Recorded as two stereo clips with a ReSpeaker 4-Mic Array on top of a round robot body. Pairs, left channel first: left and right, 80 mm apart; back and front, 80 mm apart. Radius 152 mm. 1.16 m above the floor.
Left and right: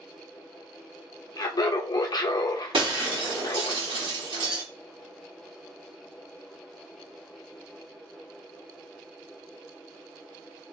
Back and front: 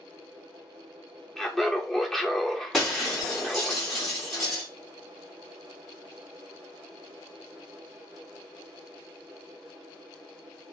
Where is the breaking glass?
90° right, 0.8 m.